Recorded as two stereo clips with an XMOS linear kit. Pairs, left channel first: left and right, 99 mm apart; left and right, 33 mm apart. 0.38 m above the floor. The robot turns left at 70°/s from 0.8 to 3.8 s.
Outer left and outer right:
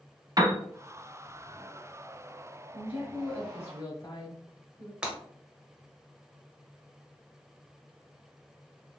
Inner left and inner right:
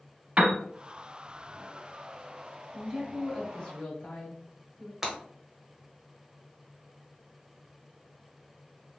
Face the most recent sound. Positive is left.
turn(degrees=-10)  # may be behind; listen again after turning